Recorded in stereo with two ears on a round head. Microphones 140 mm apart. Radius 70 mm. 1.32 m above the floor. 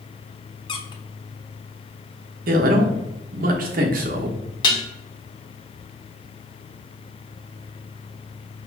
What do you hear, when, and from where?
0.7 s a squeak: 30° left (ahead or behind), 0.7 m
2.5 s a man speaking: 60° right (ahead or behind), 1.1 m
4.6 s dishes clattering: 30° left (ahead or behind), 0.8 m